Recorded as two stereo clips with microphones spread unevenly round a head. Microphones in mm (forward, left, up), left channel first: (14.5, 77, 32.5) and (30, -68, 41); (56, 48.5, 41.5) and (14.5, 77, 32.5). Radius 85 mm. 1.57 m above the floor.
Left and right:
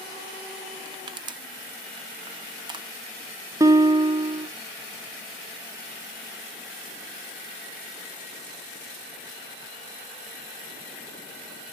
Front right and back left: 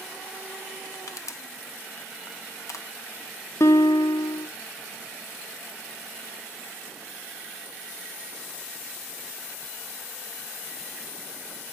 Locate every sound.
0.8 s crushing: 25° right, 0.7 m
3.6 s a guitar: 15° right, 0.7 m